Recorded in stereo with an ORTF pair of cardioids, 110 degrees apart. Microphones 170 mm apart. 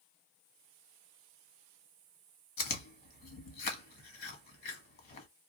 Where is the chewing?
65° left, 1.3 m.